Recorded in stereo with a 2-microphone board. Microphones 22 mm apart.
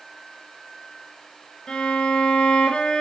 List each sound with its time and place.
1.7 s a violin: 40° left (ahead or behind), 3.5 m